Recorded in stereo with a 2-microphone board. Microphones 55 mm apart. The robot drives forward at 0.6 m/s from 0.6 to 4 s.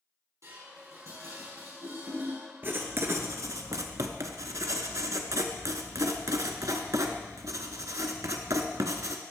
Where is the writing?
40° right (ahead or behind), 1.0 m; by 9.2 s 75° right (ahead or behind), 0.7 m.